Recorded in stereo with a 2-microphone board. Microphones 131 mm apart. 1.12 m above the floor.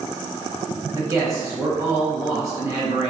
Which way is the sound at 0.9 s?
25° right (ahead or behind).